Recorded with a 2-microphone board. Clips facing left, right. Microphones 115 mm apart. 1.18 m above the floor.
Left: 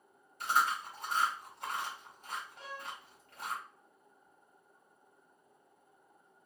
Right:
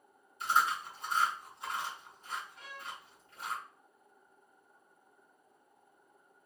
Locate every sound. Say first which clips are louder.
0.4 s chewing: right 1 dB; 65° left (ahead or behind), 1.8 m
2.6 s a violin: left 2 dB; 30° left (ahead or behind), 0.8 m